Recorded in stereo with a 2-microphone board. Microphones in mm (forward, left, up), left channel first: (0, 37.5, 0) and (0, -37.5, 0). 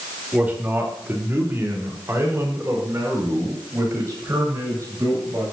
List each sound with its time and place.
0.3 s a man speaking: 20° right (ahead or behind), 3 m; by 5.4 s 45° right (ahead or behind), 8.5 m